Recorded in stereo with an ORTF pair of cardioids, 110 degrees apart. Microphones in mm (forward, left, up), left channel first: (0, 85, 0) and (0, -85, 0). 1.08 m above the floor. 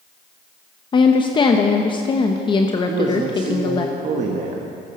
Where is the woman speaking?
30° left, 0.9 m.